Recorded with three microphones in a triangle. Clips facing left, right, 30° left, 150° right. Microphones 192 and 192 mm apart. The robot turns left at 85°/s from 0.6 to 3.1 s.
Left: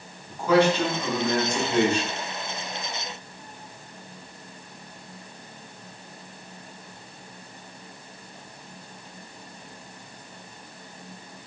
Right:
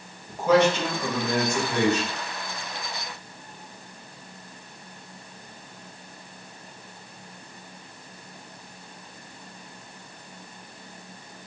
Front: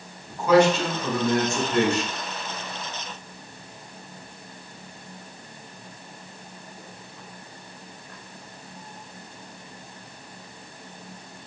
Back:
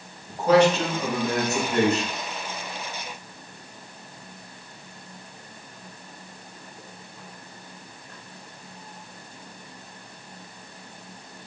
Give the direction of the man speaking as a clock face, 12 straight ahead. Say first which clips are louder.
Even, even; 3 o'clock.